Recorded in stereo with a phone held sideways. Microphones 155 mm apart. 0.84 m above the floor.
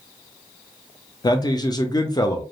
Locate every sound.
1.2 s a man speaking: 25° left (ahead or behind), 0.6 m